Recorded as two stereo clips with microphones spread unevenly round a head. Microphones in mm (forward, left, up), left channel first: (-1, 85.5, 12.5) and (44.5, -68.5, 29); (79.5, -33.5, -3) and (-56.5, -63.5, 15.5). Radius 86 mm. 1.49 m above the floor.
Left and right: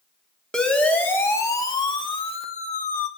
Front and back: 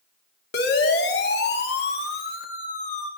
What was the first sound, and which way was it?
A siren, 20° left.